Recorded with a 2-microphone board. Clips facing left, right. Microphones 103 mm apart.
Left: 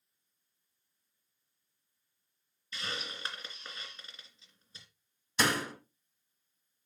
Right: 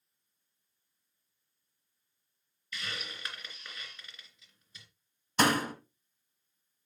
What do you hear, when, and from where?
2.7 s a hiss: 30° left (ahead or behind), 2.5 m
5.4 s a door slam: 55° right (ahead or behind), 1.7 m